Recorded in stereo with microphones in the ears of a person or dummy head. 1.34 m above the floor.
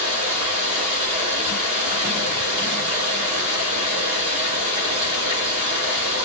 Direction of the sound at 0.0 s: 30° right (ahead or behind).